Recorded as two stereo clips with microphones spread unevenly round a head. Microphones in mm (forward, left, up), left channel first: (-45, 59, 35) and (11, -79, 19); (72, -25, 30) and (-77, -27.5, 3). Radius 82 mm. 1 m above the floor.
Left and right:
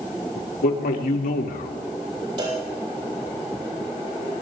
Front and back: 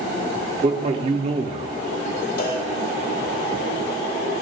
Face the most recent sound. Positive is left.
turn(degrees=-10)